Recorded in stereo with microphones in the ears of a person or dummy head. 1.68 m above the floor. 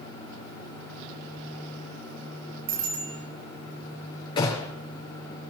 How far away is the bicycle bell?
About 7 m.